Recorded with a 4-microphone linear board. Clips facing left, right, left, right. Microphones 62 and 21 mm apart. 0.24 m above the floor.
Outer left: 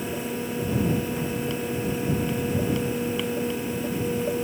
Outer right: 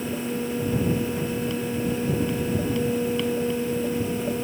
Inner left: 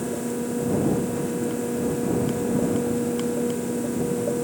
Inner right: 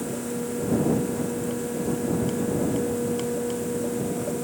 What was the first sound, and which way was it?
Only background noise.